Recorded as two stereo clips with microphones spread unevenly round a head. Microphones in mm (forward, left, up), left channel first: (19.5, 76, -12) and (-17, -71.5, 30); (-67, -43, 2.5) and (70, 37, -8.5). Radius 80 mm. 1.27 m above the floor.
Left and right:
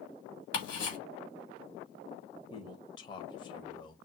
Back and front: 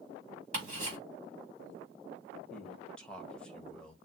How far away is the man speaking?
About 0.9 m.